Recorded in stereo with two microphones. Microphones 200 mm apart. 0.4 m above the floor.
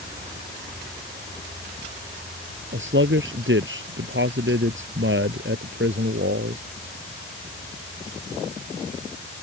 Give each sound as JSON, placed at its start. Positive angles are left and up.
{"t": 2.7, "sound": "a man speaking", "side_deg": -75}